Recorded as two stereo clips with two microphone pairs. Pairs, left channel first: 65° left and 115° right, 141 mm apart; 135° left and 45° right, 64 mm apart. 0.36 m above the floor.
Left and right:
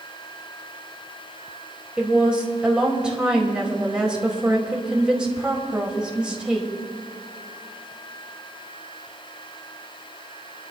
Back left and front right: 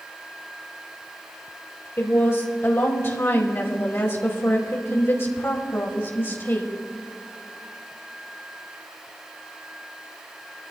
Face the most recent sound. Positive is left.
turn(degrees=165)